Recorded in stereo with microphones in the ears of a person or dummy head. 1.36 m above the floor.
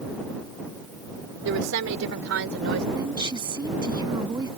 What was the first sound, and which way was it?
A woman speaking, 75° right (ahead or behind).